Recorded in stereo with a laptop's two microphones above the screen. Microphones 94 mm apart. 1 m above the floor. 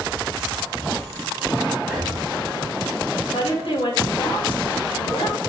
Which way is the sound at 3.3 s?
70° left (ahead or behind).